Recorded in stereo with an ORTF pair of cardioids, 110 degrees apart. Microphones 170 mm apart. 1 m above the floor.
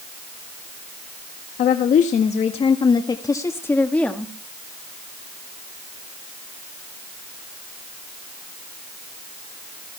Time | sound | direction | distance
1.6 | a woman speaking | 60° left | 1.7 m